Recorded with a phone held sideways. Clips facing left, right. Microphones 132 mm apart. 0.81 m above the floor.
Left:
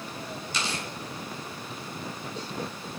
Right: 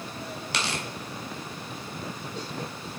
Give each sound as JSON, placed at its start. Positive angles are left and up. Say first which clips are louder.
{"t": 0.5, "sound": "tearing paper", "louder": "right 2 dB", "side_deg": -75, "distance_m": 2.5}